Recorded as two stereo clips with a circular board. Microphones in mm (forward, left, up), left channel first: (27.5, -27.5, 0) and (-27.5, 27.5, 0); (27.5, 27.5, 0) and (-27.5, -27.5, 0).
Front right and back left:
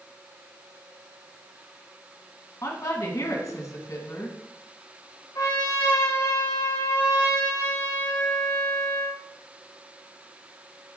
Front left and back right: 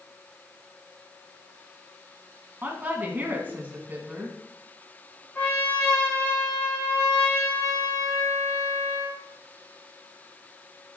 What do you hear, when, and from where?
2.6 s a woman speaking: 75° right, 2 m
5.3 s a trumpet: 15° right, 3 m